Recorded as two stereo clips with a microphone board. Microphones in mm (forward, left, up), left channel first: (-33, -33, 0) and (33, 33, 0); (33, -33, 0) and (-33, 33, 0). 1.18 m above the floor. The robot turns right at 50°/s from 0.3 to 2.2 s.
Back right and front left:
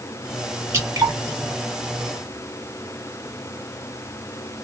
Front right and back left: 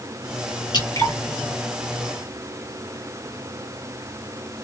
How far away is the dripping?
About 1.9 m.